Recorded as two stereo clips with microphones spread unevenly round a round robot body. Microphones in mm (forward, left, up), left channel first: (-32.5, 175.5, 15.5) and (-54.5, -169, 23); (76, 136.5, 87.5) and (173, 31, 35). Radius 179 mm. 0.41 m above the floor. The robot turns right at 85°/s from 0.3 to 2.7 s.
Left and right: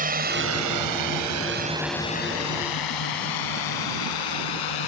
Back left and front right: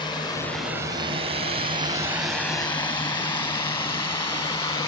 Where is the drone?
155° right; by 4.9 s 75° left.